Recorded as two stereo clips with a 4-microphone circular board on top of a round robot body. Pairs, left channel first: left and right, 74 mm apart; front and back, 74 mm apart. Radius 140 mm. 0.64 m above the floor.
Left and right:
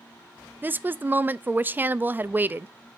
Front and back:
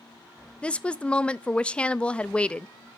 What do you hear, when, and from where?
0.6 s a woman speaking: 60° right, 0.5 m